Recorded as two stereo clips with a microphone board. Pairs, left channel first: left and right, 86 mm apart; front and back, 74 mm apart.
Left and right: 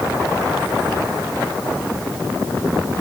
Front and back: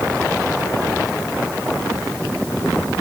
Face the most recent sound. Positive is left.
No sound to turn to.